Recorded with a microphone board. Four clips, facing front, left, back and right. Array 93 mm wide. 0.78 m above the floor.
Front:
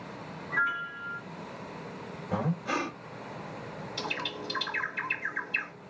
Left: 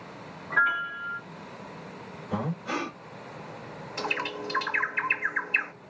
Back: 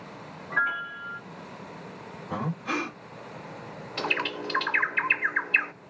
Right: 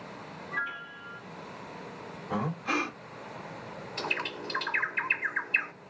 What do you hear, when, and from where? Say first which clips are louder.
0.5 s a piano: left 11 dB, back 2 dB; 120° left, 0.9 m
2.3 s breathing: even, even; 125° right, 2 m
4.0 s a bird: left 3 dB, back 7 dB; 165° left, 0.6 m